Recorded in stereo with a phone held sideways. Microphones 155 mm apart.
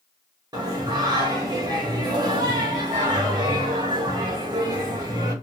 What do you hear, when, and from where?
0.5 s singing: 25° right (ahead or behind), 1.0 m